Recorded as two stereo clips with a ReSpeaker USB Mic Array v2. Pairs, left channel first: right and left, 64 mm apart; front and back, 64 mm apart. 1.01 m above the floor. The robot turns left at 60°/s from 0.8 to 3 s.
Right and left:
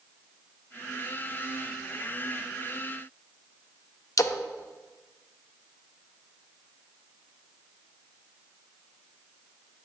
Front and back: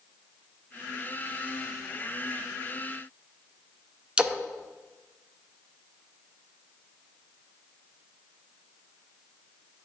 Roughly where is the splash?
Right.